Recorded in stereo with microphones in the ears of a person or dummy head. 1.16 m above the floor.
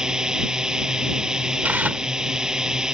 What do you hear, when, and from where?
0.0 s a drone: 5° right (ahead or behind)
1.6 s tearing paper: 10° right (ahead or behind)